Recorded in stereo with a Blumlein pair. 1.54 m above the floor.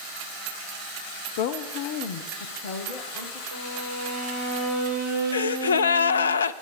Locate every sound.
1.4 s a woman speaking: 50° left, 0.7 m; by 3.4 s 45° left, 2 m
3.5 s a violin: 55° right, 4.5 m
5.3 s a gasp: 70° left, 0.5 m